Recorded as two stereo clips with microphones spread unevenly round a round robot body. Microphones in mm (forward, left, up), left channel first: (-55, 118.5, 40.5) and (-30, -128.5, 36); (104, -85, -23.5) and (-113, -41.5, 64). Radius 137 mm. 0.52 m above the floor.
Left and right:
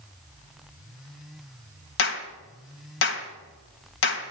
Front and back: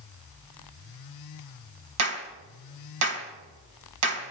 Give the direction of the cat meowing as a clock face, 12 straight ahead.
No cat meowing in this recording.